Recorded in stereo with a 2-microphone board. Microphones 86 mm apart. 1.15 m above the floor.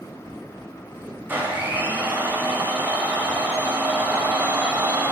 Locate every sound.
1.3 s a blender: 20° right (ahead or behind), 3.5 m